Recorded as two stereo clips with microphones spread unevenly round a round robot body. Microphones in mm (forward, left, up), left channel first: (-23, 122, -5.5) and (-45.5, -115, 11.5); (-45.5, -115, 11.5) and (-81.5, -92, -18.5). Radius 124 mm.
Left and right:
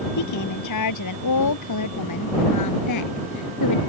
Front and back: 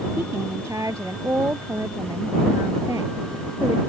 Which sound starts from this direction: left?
A woman speaking, at 0.2 s.